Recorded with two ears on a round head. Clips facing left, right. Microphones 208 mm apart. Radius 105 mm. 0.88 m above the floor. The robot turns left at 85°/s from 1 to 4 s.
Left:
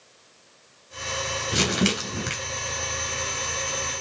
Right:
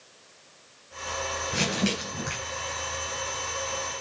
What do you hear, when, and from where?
1.5 s crumpling: 130° left, 4 m; by 2.4 s 60° left, 4 m